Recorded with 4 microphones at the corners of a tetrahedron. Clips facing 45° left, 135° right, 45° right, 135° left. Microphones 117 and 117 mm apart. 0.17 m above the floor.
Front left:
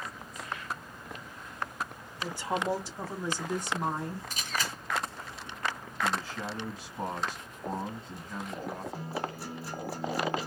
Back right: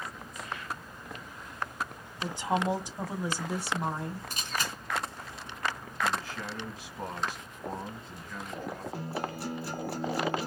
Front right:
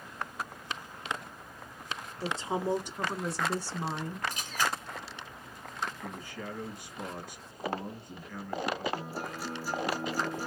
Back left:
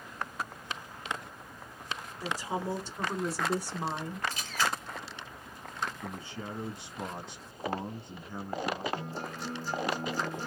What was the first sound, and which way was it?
A woman speaking, 80° right.